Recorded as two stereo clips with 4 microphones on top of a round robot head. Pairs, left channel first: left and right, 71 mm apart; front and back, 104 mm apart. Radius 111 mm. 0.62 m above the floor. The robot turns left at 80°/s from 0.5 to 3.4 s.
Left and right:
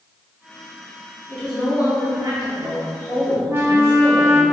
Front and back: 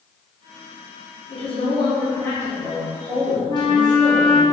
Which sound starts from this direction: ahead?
A woman speaking, at 1.3 s.